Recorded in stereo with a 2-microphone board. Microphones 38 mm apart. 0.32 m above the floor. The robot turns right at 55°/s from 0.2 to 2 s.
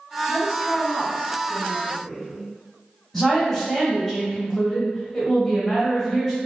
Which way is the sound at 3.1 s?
10° left (ahead or behind).